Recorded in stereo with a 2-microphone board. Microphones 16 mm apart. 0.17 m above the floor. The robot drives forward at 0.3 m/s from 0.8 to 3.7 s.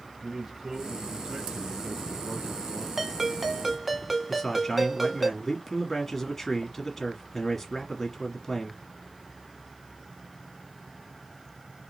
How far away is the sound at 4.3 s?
About 2.5 m.